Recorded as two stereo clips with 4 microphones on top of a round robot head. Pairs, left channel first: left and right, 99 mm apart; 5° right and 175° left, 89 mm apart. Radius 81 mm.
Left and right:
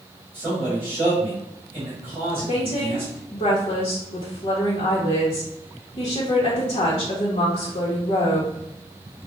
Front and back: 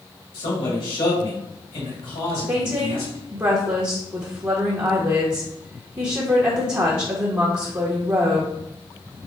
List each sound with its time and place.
0.3 s a man speaking: 20° right, 2.5 m
2.5 s a woman speaking: 110° left, 1.4 m